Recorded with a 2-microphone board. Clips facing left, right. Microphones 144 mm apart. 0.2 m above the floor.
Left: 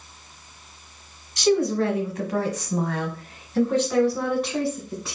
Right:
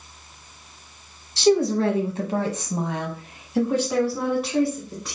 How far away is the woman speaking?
About 1.4 m.